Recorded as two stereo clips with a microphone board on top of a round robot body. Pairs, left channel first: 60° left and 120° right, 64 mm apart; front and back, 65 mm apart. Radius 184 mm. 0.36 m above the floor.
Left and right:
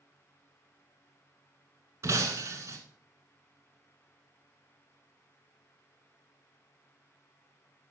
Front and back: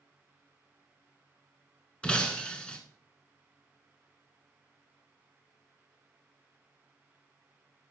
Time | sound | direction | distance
2.0 | breaking glass | 75° right | 1.2 m